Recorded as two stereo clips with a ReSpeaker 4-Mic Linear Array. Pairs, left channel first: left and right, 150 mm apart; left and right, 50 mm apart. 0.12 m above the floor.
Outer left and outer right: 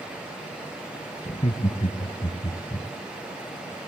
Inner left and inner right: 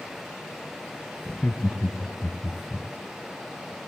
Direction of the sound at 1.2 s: 45° left (ahead or behind).